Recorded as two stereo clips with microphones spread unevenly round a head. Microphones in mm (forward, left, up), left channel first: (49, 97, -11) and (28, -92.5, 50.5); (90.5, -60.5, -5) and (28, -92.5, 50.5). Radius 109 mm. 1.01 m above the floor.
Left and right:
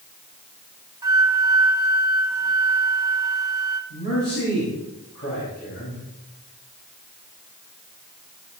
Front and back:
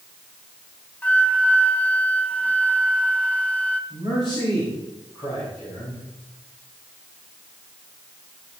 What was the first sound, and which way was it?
A flute, 15° right.